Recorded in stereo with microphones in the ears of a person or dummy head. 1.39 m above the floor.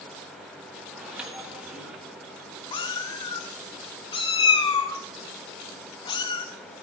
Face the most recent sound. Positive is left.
turn(degrees=25)  # may be behind; listen again after turning